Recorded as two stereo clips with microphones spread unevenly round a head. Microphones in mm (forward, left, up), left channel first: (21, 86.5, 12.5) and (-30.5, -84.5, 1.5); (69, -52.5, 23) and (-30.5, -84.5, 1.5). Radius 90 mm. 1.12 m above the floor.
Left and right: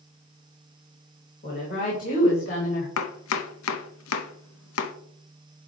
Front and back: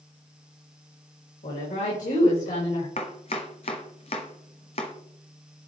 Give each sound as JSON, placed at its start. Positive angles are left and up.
{"t": 1.4, "sound": "a woman speaking", "azimuth_deg": 25, "distance_m": 4.5}
{"t": 3.0, "sound": "chopping", "azimuth_deg": 75, "distance_m": 0.9}